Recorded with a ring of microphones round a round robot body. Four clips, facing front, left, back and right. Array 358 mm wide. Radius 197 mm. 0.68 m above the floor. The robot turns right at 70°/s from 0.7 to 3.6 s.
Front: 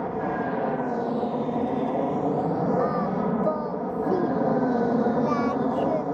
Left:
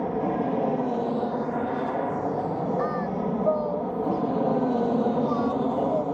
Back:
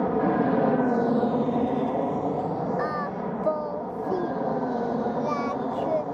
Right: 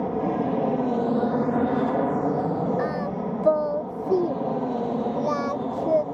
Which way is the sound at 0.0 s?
170° right.